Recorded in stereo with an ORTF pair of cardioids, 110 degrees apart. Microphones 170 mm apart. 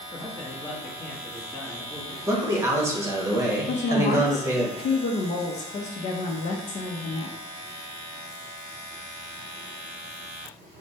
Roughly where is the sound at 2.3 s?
Ahead.